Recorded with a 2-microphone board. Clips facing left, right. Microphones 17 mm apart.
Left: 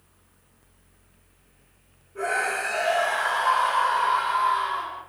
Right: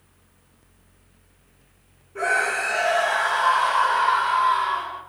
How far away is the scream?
About 1.7 m.